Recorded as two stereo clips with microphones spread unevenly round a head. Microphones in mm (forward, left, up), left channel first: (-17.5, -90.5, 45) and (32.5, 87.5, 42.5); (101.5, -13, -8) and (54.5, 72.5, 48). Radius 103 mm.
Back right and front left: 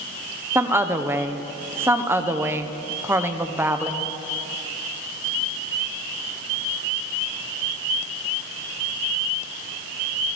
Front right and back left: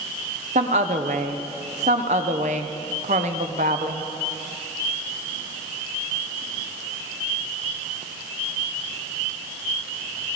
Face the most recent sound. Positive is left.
turn(degrees=155)